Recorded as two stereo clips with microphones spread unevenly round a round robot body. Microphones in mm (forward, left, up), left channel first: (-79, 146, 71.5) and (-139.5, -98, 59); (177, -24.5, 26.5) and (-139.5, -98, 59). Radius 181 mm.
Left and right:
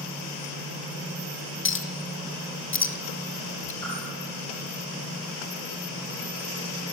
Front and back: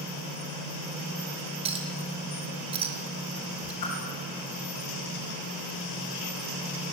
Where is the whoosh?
5° right, 7 m.